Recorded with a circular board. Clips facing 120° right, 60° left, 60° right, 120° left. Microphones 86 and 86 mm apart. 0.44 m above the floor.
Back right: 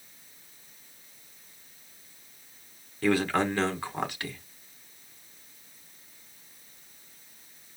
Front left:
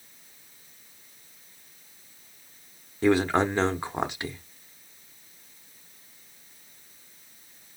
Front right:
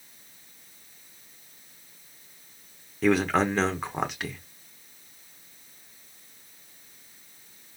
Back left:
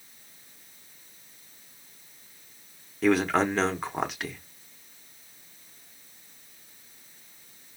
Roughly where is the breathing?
I don't hear breathing.